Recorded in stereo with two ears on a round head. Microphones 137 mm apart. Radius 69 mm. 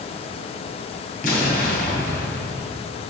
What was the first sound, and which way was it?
An explosion, 55° left (ahead or behind).